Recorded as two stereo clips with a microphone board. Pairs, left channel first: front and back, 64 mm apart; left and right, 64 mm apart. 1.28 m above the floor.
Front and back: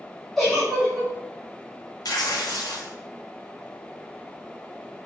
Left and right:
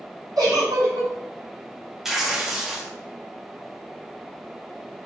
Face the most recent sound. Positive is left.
turn(degrees=-5)